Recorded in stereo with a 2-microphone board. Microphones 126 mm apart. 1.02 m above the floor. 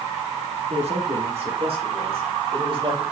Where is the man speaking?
55° right (ahead or behind), 1.7 m; by 3.0 s 45° right (ahead or behind), 3.5 m.